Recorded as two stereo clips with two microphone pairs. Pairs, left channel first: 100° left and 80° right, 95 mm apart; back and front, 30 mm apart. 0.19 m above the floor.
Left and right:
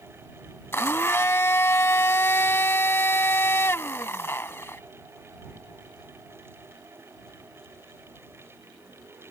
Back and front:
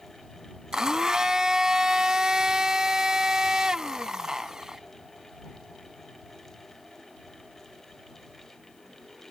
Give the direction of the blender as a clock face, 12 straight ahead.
10 o'clock.